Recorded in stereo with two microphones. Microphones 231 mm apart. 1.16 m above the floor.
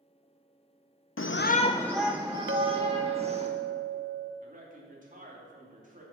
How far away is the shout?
About 0.5 m.